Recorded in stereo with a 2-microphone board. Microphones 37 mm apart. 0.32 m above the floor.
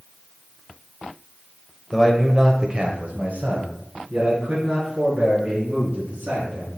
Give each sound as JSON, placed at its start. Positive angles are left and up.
{"t": 1.9, "sound": "a man speaking", "side_deg": 5, "distance_m": 1.1}